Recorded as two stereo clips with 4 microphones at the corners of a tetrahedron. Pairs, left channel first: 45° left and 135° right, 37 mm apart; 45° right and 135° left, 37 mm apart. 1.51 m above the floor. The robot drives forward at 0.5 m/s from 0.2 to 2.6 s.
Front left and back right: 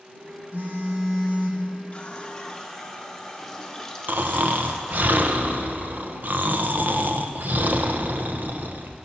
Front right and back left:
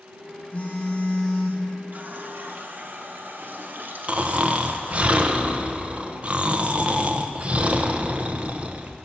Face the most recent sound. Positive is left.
turn(degrees=-170)